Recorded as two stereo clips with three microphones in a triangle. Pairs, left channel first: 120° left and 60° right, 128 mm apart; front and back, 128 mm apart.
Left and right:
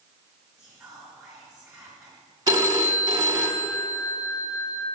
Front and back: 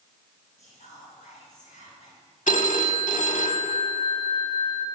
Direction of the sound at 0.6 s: 25° left.